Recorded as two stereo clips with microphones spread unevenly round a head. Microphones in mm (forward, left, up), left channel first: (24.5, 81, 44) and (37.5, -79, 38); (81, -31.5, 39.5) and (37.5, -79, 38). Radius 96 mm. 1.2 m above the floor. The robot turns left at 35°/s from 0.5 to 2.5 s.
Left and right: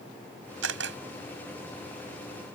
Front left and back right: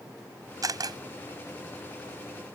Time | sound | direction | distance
0.6 | a camera shutter | 105° right | ?